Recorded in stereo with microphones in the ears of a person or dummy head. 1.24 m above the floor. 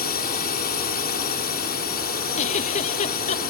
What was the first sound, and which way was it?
A drone, 40° left (ahead or behind).